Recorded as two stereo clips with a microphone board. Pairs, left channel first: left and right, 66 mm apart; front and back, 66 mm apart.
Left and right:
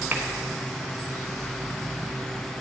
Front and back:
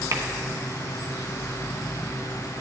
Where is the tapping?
150° right, 1.2 m.